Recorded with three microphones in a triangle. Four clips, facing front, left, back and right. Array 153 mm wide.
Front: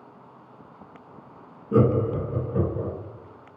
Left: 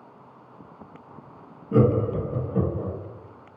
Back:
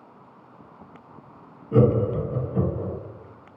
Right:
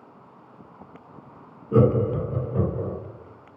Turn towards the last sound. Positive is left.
turn(degrees=-20)